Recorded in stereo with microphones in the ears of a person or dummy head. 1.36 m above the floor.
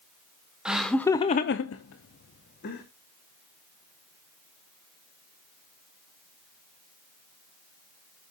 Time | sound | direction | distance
0.7 | laughter | 5° right (ahead or behind) | 0.9 m